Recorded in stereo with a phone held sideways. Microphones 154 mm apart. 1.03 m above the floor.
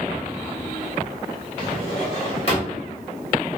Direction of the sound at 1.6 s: 40° left (ahead or behind).